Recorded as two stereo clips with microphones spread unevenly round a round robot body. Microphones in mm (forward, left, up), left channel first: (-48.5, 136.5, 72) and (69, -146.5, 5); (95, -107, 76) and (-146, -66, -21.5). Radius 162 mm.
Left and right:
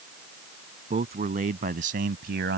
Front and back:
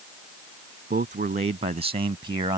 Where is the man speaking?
135° right; by 2.6 s 125° right.